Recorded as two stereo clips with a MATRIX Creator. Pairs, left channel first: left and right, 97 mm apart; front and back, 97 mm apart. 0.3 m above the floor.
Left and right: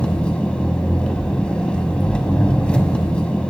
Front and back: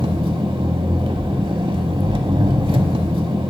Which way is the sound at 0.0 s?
170° left.